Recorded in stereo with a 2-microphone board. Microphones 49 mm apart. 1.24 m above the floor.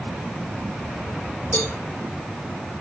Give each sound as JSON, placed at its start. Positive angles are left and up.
{"t": 1.5, "sound": "a cowbell", "side_deg": 45, "distance_m": 3.0}